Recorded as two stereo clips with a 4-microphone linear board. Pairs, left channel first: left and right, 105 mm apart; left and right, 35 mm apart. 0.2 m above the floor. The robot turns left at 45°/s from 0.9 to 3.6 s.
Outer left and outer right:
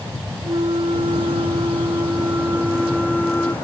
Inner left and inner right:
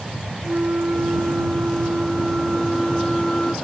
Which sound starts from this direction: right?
A flute, at 0.4 s.